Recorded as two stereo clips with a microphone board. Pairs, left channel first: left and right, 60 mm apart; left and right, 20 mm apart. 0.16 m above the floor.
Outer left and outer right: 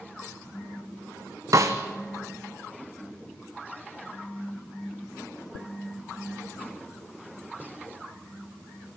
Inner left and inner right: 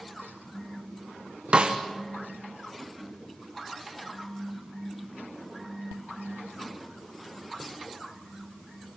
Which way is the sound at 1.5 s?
60° right (ahead or behind).